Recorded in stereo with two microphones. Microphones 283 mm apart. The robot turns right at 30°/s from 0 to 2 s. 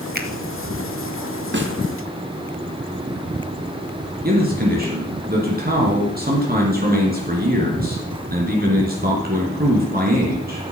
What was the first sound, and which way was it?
A finger snap, 35° right (ahead or behind).